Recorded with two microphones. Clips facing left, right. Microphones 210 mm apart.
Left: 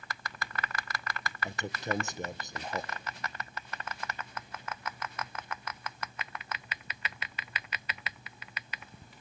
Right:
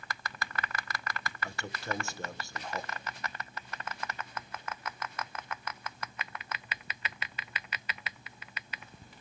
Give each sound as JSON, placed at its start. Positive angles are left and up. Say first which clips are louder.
{"t": 1.4, "sound": "a man speaking", "louder": "left 4 dB", "side_deg": 20, "distance_m": 1.3}